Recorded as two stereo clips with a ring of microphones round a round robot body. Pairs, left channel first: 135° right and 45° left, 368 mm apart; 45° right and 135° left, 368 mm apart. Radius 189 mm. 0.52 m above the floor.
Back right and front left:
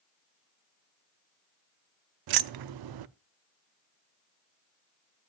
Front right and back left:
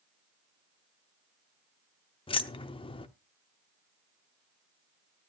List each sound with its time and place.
2.3 s keys jangling: 30° left, 0.5 m